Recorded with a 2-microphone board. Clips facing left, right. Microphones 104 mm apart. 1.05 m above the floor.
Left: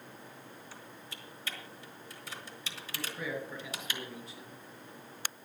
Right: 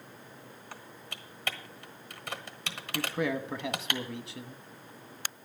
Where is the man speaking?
80° right, 1.2 m.